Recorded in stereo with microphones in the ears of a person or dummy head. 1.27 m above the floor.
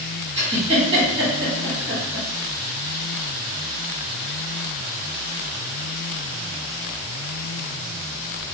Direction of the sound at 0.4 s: 40° right (ahead or behind).